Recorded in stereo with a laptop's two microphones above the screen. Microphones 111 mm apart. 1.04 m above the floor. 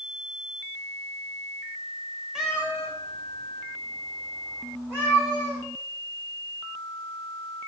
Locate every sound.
2.4 s a cat meowing: 5° right (ahead or behind), 0.6 m; by 5.6 s 25° right (ahead or behind), 3 m